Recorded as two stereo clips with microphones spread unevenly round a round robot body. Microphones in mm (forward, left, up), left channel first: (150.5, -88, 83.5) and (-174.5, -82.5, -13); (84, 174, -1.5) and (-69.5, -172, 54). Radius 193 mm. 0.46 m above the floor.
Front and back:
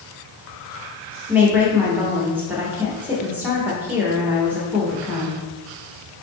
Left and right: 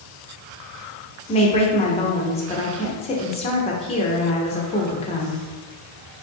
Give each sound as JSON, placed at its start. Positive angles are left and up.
{"t": 1.3, "sound": "a woman speaking", "azimuth_deg": 120, "distance_m": 0.9}